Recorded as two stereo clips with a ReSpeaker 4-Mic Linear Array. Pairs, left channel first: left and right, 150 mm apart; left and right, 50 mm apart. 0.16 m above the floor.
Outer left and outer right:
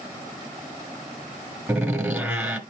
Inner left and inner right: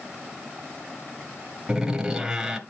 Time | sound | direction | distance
1.7 | a door slam | 10° right (ahead or behind) | 1.7 m